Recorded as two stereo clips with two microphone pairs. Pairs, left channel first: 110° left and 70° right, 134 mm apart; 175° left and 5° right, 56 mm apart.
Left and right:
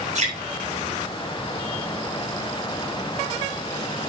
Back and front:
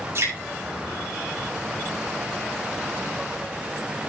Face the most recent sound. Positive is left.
turn(degrees=-40)